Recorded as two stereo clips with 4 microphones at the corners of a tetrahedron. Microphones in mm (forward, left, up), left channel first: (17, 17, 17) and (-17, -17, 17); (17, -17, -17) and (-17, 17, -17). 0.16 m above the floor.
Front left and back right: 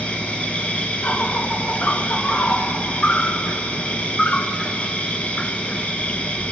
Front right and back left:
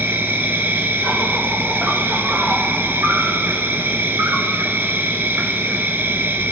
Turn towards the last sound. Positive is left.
turn(degrees=105)